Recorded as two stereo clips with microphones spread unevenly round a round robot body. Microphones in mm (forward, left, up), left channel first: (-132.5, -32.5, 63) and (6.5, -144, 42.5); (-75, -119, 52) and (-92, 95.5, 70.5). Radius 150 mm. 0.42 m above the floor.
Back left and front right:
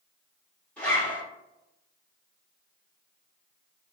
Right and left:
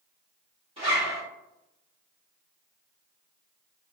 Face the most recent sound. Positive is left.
turn(degrees=55)